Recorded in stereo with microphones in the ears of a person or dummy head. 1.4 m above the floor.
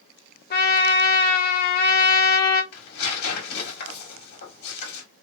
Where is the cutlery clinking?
No cutlery clinking in this recording.